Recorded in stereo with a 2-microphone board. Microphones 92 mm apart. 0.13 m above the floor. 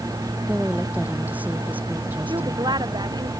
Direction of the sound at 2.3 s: 50° right (ahead or behind).